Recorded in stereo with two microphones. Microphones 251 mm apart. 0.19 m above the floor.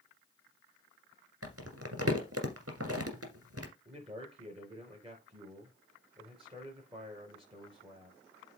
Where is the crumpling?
70° right (ahead or behind), 2.0 m.